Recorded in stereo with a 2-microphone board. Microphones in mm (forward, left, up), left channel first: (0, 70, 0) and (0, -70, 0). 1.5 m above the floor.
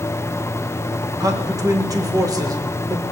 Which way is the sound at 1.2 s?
25° right (ahead or behind).